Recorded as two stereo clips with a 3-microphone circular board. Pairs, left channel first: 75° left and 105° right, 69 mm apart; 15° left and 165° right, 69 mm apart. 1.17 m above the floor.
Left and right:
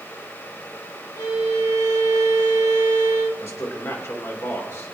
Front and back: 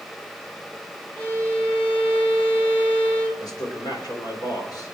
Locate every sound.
1.2 s a violin: 80° left, 1.6 m
3.4 s a man speaking: 30° left, 4 m